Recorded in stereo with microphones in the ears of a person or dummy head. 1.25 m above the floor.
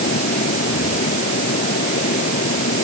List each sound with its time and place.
0.0 s a fan: 40° left (ahead or behind)